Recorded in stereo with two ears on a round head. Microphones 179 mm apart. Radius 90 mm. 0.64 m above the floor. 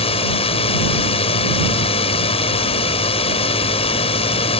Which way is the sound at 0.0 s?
30° left (ahead or behind).